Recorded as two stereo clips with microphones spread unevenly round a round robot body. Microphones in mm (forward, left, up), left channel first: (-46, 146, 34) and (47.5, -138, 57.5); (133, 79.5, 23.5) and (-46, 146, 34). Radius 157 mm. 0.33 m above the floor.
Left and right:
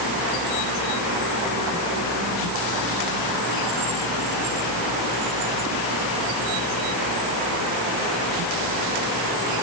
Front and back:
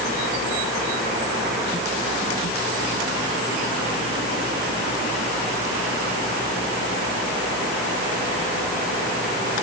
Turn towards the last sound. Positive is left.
No sound to turn to.